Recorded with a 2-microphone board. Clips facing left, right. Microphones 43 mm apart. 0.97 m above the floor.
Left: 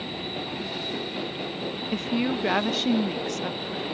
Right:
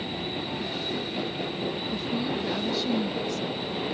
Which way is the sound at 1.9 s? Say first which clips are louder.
Left 7 dB; 60° left (ahead or behind).